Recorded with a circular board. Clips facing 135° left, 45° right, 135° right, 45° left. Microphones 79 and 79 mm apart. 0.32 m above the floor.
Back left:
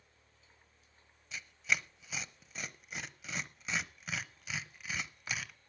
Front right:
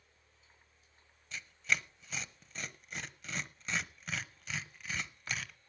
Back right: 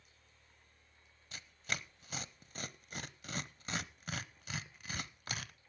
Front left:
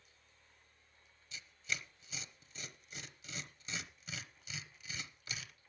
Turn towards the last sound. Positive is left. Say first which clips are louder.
# even, back right 1 dB
turn(degrees=-140)